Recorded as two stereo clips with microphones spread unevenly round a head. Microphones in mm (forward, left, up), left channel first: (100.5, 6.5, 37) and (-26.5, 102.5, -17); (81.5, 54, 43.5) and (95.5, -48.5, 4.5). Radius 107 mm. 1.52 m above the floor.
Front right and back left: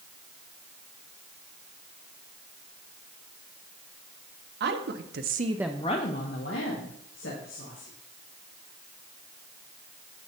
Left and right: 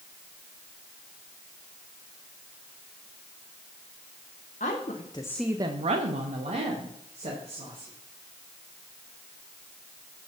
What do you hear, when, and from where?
4.6 s a woman speaking: 150° left, 1.6 m; by 7.9 s 65° right, 3.5 m